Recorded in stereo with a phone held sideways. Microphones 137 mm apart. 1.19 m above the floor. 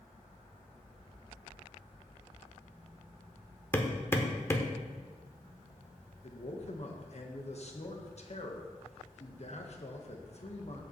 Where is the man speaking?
55° left (ahead or behind), 1.3 m.